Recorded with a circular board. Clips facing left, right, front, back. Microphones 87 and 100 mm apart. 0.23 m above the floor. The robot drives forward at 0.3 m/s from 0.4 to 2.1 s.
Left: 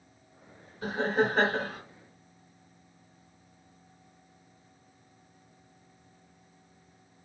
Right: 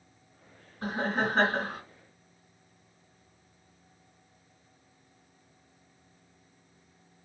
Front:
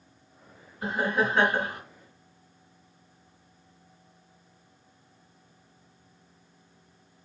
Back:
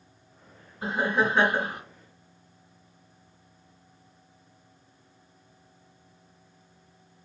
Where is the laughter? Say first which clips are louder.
Left 3 dB, back 1 dB; 125° right, 2 m; by 1.8 s 130° right, 2.5 m.